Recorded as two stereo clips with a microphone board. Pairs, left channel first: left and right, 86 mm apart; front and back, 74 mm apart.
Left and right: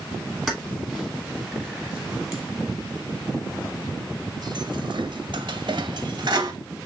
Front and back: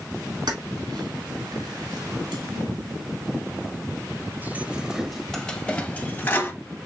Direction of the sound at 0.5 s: 175° left.